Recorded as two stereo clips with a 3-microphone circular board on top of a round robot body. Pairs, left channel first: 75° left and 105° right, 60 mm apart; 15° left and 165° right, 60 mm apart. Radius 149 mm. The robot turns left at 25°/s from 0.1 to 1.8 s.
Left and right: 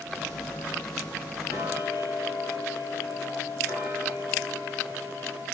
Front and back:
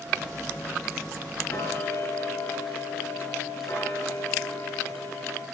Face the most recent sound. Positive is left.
turn(degrees=40)